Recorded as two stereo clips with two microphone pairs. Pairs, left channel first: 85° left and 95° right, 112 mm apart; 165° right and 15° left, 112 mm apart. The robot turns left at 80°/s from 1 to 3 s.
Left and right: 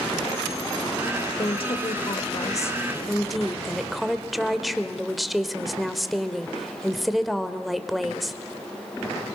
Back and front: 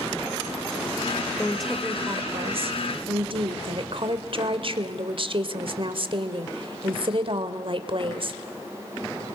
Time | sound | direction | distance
1.4 | a woman speaking | 125° left | 1.4 m